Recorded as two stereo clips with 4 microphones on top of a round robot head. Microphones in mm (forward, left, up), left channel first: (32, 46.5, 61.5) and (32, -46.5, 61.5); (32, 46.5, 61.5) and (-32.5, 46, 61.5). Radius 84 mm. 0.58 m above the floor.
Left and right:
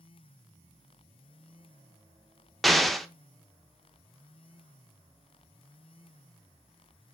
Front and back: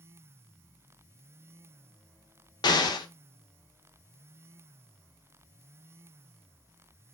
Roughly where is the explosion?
Ahead.